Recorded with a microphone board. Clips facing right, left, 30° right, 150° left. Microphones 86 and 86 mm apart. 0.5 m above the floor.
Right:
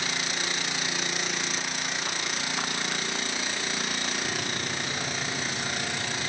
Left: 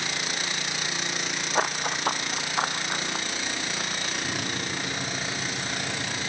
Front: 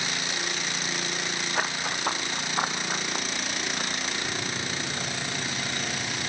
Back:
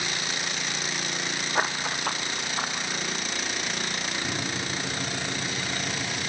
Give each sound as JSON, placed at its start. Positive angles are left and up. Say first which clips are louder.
{"t": 1.6, "sound": "running footsteps", "louder": "left 6 dB, back 3 dB", "azimuth_deg": 80, "distance_m": 1.2}
{"t": 4.2, "sound": "a microwave", "louder": "left 1 dB, back 1 dB", "azimuth_deg": 145, "distance_m": 4.0}